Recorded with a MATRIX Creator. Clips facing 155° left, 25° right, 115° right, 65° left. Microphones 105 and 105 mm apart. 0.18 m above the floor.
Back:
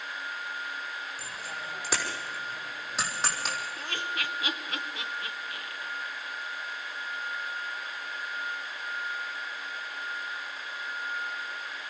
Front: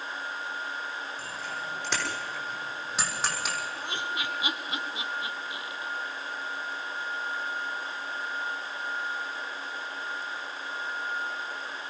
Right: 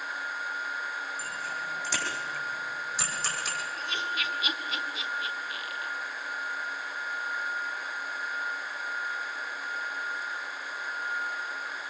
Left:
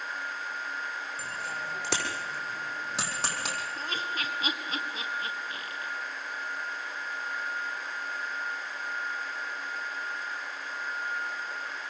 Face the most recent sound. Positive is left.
turn(degrees=40)